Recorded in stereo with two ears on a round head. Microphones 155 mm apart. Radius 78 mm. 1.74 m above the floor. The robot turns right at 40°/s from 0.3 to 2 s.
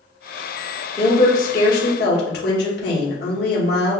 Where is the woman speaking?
35° left, 1.1 m; by 4.0 s 75° left, 1.1 m.